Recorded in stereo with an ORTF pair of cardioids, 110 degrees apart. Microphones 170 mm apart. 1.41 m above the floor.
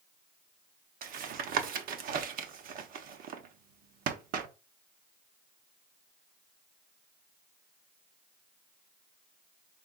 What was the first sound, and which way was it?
Tapping, 60° right.